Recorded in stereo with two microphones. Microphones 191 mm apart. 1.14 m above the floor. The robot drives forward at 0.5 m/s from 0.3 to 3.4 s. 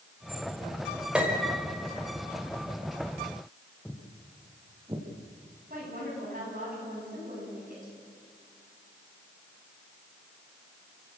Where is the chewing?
I don't hear chewing.